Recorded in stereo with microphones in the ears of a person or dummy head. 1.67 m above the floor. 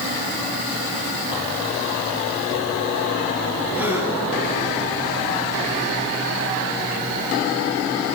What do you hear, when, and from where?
3.8 s a gasp: 10° right (ahead or behind), 6 m